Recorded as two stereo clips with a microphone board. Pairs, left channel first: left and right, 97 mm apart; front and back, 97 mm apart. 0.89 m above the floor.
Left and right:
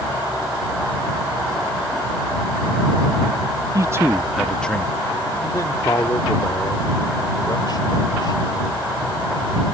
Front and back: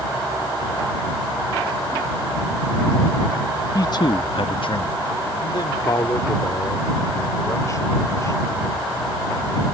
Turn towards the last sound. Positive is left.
turn(degrees=55)